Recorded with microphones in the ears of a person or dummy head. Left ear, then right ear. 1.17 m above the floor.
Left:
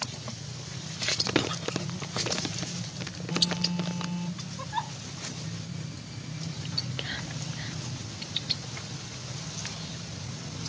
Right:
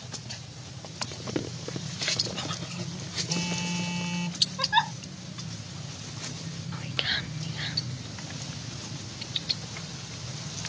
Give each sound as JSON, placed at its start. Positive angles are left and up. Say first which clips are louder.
{"t": 1.1, "sound": "crumpling", "louder": "left 11 dB", "side_deg": 40}
{"t": 3.3, "sound": "a phone buzzing", "louder": "left 7 dB", "side_deg": -70}
{"t": 4.6, "sound": "a giggle", "louder": "right 7 dB", "side_deg": -70}
{"t": 6.7, "sound": "whispering", "louder": "right 5 dB", "side_deg": -25}